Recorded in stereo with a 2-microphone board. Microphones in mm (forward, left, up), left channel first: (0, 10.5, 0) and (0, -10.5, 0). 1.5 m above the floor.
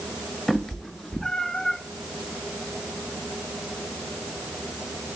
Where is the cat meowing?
5° left (ahead or behind), 1.2 m; by 1.8 s 40° left (ahead or behind), 1.1 m.